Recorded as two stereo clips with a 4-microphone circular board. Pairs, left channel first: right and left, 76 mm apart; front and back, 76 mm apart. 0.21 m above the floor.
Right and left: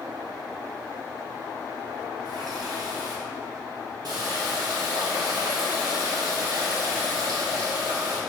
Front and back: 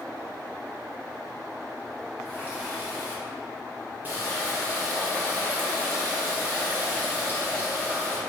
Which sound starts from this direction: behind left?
A running tap, at 2.2 s.